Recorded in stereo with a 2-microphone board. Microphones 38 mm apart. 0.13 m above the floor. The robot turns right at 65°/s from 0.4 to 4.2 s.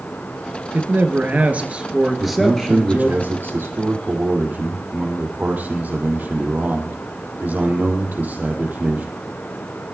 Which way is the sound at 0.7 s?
105° right.